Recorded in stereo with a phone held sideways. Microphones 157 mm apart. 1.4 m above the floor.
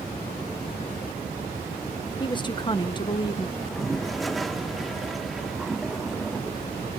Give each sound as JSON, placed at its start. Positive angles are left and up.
{"t": 2.2, "sound": "a woman speaking", "side_deg": 30, "distance_m": 1.4}
{"t": 3.6, "sound": "a toilet flushing", "side_deg": 0, "distance_m": 0.7}